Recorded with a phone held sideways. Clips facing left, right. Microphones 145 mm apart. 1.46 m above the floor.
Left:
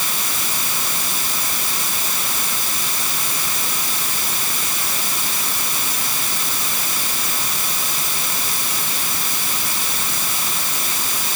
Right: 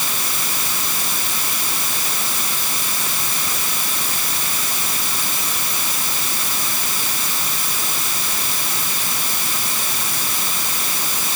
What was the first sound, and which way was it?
Only background noise.